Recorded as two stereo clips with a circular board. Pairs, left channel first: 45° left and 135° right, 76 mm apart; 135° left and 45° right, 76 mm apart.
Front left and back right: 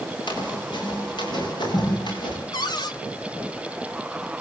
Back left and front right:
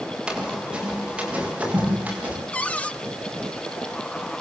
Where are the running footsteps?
35° left, 9.5 m; by 2.4 s 25° left, 10.5 m.